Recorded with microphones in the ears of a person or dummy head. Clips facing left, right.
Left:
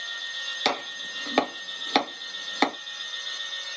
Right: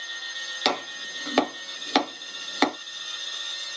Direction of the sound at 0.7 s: 5° right (ahead or behind).